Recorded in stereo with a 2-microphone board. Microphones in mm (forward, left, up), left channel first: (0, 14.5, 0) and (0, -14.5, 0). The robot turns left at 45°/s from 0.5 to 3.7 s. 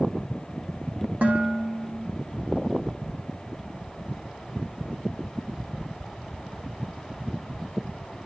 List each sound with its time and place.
1.2 s dishes clattering: 95° right, 4.5 m; by 2.1 s 140° right, 4.5 m